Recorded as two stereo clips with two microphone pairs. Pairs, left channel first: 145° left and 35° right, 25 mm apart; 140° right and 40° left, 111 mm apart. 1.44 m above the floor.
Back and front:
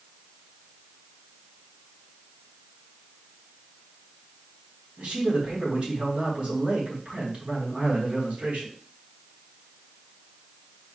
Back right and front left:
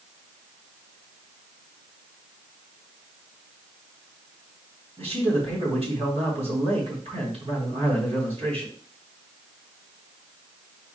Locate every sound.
5.0 s a man speaking: 10° left, 4 m